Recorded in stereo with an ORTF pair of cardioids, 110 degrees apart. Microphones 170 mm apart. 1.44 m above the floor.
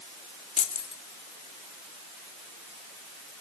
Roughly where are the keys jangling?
Ahead left.